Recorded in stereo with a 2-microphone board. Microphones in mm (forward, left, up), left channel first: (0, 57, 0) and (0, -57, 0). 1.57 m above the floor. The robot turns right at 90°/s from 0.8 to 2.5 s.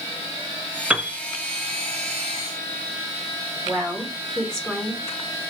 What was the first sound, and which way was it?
A piano, 10° right (ahead or behind).